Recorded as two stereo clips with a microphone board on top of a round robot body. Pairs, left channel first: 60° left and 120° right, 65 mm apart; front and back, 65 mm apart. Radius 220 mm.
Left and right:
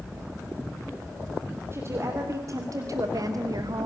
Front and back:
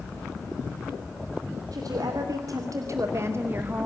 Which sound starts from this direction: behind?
A woman speaking, at 1.7 s.